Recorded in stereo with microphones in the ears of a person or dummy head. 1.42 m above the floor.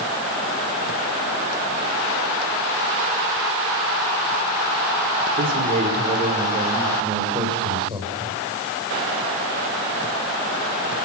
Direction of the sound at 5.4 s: 50° right (ahead or behind).